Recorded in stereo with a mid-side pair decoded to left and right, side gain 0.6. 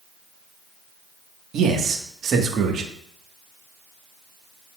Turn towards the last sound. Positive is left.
turn(degrees=-50)